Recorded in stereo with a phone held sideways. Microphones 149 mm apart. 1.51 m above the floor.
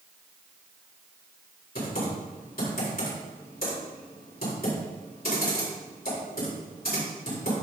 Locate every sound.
1.8 s typing on a keyboard: 80° left, 4 m